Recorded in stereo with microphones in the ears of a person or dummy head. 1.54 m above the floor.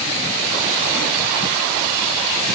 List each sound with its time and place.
Only background noise.